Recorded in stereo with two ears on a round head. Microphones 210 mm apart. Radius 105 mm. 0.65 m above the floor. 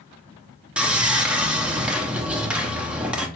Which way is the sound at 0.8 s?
5° right (ahead or behind).